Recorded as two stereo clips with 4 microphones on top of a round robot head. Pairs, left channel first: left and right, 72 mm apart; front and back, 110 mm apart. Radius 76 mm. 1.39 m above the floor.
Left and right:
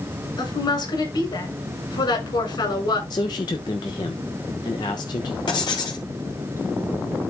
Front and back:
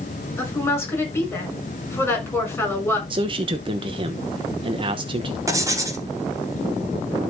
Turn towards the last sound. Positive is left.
turn(degrees=120)